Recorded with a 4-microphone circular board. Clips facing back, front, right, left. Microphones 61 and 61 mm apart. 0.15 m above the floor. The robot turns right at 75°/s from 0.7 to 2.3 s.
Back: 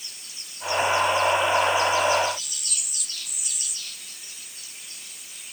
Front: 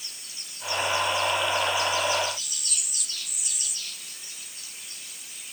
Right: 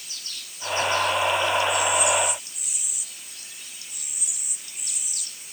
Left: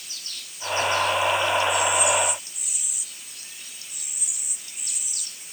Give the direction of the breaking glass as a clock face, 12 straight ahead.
No breaking glass in this recording.